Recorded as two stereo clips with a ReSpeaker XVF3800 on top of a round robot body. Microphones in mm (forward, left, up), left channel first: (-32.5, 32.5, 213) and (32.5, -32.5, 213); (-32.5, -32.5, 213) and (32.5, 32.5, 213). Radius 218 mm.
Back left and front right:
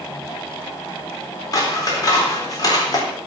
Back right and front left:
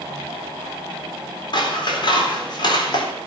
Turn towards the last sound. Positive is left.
turn(degrees=-175)